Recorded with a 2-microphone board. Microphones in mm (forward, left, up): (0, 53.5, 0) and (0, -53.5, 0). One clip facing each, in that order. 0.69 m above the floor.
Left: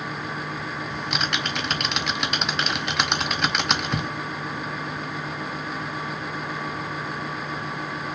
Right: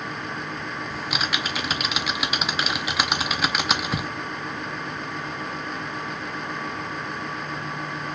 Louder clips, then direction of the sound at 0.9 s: Even; 5° right (ahead or behind).